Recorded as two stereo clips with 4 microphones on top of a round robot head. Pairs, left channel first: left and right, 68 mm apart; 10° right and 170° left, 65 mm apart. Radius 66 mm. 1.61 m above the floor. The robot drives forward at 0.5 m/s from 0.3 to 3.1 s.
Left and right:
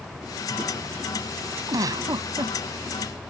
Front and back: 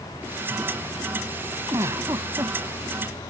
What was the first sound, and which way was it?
A giggle, 125° right.